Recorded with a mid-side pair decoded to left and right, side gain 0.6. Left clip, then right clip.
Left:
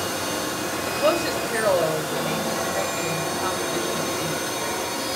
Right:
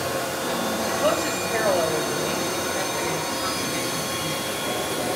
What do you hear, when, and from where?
0.9 s a woman speaking: 15° left, 2.5 m